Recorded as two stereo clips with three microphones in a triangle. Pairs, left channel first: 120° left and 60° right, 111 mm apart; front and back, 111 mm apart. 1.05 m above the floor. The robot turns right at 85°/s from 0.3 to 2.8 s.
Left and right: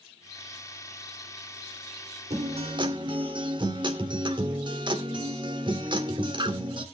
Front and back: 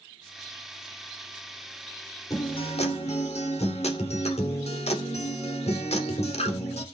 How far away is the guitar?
About 2.5 m.